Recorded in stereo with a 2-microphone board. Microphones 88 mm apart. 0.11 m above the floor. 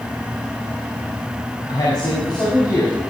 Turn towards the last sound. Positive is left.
turn(degrees=55)  # may be behind; listen again after turning